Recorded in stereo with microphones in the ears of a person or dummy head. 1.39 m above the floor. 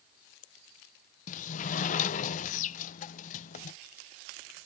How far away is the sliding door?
About 0.6 m.